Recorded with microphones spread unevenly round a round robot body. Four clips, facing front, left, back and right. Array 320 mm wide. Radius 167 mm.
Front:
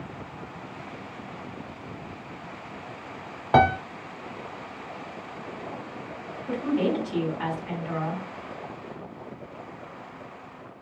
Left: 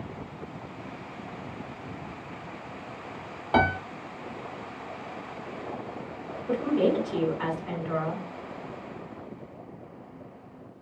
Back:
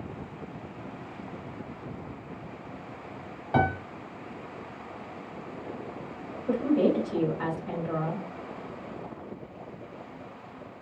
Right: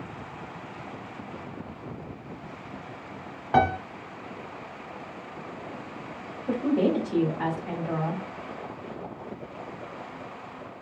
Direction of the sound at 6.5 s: 130° right.